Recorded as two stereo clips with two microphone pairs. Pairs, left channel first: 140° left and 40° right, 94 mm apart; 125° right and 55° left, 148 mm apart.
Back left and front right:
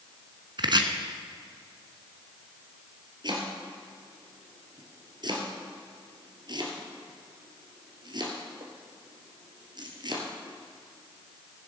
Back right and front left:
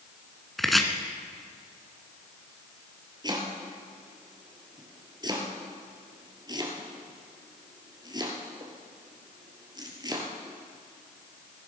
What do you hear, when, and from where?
0.6 s chopping: 35° right, 1.1 m
3.2 s chopping: 5° right, 1.9 m